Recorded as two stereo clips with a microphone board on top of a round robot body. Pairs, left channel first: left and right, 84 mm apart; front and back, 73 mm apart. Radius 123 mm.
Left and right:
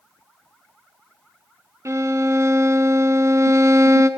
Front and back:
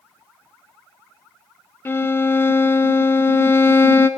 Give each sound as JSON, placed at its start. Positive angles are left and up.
{"t": 1.9, "sound": "a violin", "azimuth_deg": -50, "distance_m": 0.5}